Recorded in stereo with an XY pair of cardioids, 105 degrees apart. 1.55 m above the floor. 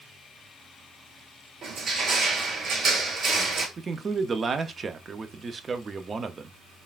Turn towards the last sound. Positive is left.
turn(degrees=-35)